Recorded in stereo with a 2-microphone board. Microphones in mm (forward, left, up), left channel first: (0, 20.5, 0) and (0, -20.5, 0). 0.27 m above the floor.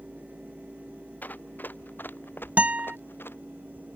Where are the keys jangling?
I don't hear keys jangling.